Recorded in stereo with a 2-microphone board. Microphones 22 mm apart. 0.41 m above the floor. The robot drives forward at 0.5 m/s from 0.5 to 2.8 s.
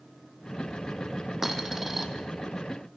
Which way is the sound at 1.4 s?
15° right (ahead or behind).